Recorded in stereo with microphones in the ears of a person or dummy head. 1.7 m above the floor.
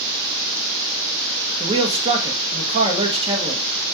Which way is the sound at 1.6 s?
25° right (ahead or behind).